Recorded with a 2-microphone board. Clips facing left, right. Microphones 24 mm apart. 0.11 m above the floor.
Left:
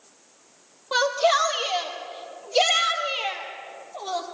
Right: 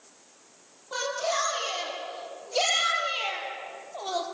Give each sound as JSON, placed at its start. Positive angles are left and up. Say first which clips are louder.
{"t": 0.9, "sound": "a shout", "louder": "left 8 dB", "side_deg": 45, "distance_m": 4.0}